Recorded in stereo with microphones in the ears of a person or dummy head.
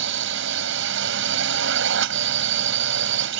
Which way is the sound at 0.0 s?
65° right (ahead or behind).